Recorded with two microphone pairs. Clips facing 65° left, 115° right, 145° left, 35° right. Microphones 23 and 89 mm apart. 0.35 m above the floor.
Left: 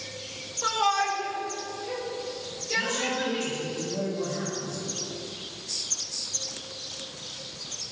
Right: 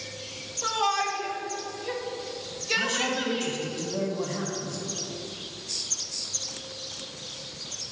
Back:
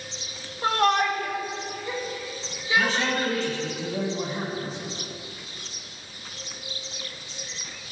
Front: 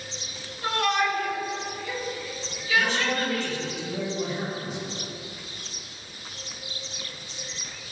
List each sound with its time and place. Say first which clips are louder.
0.6 s a shout: left 1 dB, back 3 dB; 135° left, 1.2 m; by 3.6 s 145° right, 4.5 m
2.8 s a man speaking: even, back 1 dB; 165° right, 2.5 m